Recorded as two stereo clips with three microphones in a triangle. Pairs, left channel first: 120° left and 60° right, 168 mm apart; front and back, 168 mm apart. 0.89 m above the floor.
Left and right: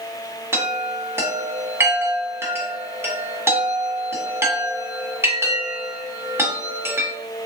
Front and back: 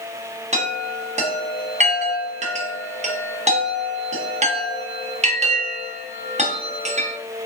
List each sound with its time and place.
0.5 s a chime: 135° right, 0.7 m